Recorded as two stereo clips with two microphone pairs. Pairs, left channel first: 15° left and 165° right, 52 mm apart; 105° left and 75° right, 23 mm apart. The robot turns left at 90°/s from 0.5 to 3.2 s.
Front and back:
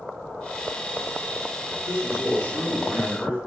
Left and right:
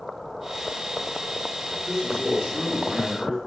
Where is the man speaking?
20° left, 1.4 m; by 3.4 s 115° right, 1.4 m.